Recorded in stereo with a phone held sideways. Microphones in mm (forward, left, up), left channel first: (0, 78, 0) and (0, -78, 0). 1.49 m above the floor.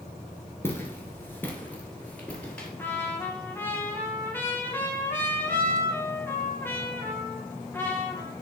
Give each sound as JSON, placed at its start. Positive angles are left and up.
{"t": 0.6, "sound": "footsteps", "side_deg": 15, "distance_m": 1.5}
{"t": 2.8, "sound": "a trumpet", "side_deg": 15, "distance_m": 1.3}